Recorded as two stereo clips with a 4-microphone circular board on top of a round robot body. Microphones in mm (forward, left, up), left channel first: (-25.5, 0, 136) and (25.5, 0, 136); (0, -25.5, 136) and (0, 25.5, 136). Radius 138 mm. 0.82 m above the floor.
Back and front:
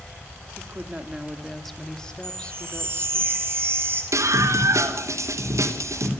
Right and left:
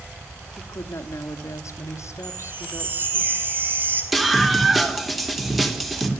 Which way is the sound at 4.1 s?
Straight ahead.